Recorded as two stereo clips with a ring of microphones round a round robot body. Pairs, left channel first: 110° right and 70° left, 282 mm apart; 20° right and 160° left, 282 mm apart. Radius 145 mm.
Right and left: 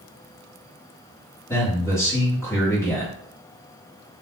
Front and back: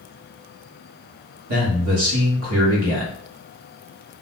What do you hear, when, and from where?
1.5 s a man speaking: 170° left, 1.3 m